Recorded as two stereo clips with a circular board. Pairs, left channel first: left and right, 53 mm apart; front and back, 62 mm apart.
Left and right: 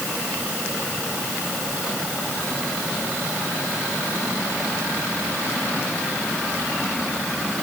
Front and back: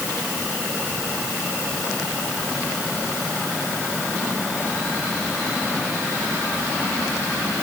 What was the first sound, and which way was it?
Only background noise.